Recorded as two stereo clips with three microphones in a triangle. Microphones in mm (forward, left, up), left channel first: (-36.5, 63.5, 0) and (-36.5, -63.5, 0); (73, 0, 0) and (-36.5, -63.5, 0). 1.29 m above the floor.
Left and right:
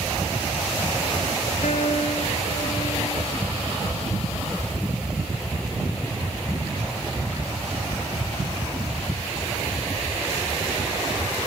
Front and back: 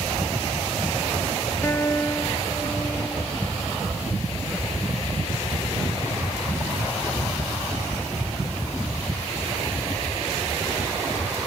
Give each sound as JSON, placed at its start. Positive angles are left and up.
{"t": 1.6, "sound": "a guitar", "azimuth_deg": 100, "distance_m": 1.2}